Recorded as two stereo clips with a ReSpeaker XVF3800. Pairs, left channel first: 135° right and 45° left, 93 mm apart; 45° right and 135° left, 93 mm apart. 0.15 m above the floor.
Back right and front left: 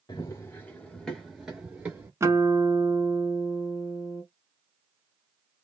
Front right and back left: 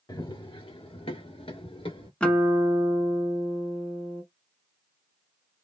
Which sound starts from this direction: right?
Running footsteps, at 0.1 s.